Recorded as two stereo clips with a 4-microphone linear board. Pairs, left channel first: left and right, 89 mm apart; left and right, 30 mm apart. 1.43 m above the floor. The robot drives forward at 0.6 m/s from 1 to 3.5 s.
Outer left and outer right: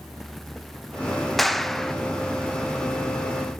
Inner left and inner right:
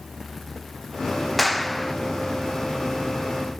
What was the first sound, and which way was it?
A clap, 5° left (ahead or behind).